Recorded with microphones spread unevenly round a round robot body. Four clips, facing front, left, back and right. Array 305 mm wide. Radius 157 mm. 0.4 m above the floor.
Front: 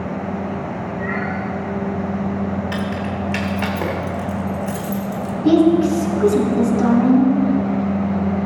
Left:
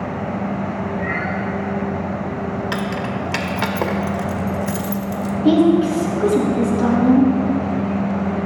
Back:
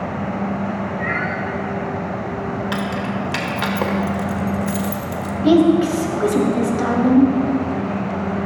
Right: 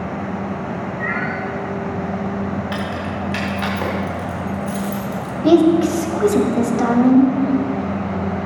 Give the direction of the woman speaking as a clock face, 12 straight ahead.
4 o'clock.